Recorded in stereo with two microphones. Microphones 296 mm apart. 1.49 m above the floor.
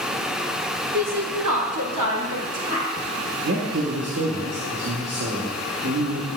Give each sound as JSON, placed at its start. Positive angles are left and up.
{"t": 0.9, "sound": "a woman speaking", "side_deg": -50, "distance_m": 1.3}
{"t": 3.4, "sound": "a man speaking", "side_deg": -55, "distance_m": 1.2}